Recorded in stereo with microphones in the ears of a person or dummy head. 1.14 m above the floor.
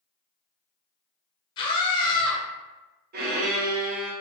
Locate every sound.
1.6 s a scream: 25° left (ahead or behind), 0.8 m
3.1 s a violin: 50° right (ahead or behind), 0.5 m